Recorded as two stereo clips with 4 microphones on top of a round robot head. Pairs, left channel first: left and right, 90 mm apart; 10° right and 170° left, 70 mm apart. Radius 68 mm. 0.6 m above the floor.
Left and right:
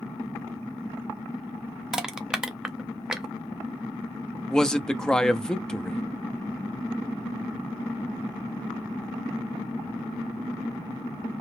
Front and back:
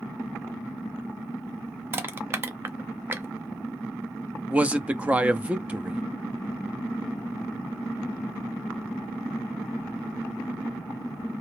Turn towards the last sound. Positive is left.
turn(degrees=155)